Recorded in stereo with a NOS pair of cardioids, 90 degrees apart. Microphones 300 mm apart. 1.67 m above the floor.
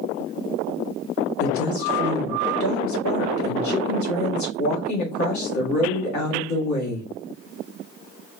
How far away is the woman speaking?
About 2.0 m.